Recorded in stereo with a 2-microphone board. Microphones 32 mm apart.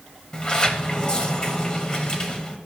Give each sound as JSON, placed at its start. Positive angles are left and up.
{"t": 0.3, "sound": "a sliding door", "side_deg": 25, "distance_m": 1.1}